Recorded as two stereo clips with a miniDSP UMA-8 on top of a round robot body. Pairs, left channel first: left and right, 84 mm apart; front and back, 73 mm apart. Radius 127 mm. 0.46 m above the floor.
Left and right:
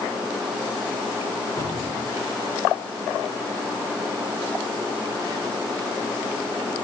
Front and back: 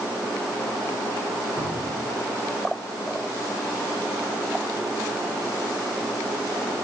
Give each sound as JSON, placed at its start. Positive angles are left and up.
{"t": 1.6, "sound": "a cupboard door", "azimuth_deg": 150, "distance_m": 2.5}